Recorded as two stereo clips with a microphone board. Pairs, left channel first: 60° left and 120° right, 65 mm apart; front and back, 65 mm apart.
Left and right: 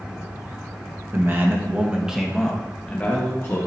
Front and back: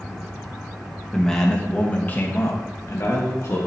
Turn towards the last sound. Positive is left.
turn(degrees=20)